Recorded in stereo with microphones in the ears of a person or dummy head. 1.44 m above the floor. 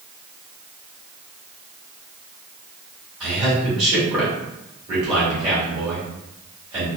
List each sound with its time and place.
3.2 s a man speaking: 20° right (ahead or behind), 1.9 m